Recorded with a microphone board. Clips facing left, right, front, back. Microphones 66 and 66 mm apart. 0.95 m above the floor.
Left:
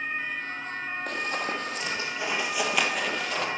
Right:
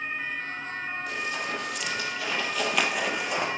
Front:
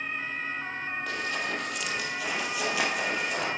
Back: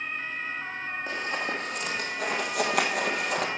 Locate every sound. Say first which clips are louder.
1.1 s running footsteps: left 3 dB, back 2 dB; 120° left, 2 m; by 3.5 s 155° right, 1.8 m